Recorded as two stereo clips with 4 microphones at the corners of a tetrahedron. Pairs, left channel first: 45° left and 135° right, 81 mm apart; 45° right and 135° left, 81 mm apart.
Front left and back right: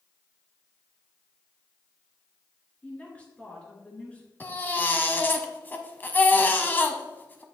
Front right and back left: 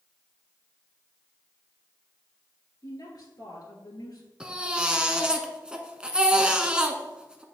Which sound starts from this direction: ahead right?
A woman speaking, at 2.8 s.